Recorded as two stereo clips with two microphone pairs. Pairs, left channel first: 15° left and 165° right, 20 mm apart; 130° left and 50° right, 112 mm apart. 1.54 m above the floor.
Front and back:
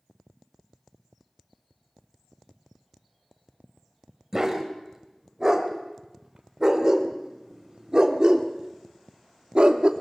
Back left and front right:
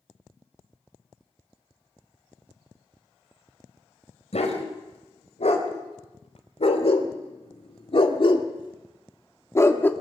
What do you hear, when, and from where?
4.3 s a dog barking: 125° left, 4 m; by 9.9 s 165° right, 1.5 m